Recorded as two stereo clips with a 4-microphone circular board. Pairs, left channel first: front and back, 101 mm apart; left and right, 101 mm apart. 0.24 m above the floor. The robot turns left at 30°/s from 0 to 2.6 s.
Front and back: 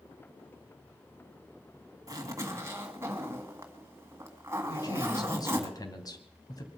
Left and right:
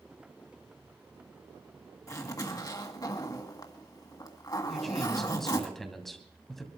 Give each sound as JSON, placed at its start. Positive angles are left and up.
{"t": 2.1, "sound": "a zipper", "azimuth_deg": 140, "distance_m": 1.7}
{"t": 4.7, "sound": "a man speaking", "azimuth_deg": 5, "distance_m": 2.0}